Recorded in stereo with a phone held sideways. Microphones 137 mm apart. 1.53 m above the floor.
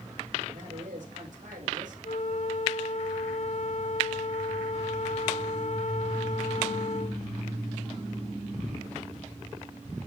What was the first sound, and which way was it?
A man speaking, 65° right (ahead or behind).